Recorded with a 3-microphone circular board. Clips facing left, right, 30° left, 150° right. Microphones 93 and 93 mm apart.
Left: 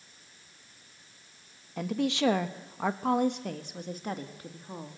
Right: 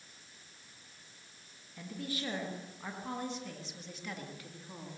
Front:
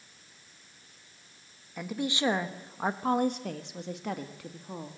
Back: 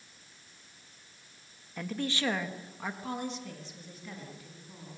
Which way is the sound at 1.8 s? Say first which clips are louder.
Left 12 dB, front 2 dB; 110° left.